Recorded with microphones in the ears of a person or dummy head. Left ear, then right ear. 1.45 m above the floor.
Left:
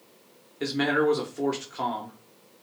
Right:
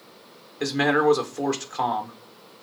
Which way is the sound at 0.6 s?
25° right (ahead or behind).